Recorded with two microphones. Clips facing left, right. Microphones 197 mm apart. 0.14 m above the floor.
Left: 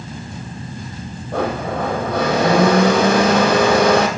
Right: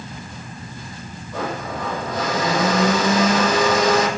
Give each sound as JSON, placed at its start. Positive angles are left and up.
{"t": 1.3, "sound": "a blender", "side_deg": 65, "distance_m": 3.0}